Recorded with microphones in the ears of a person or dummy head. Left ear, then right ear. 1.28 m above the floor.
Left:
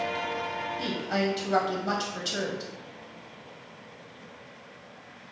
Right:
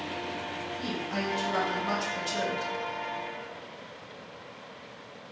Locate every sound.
0.8 s a woman speaking: 25° left (ahead or behind), 0.7 m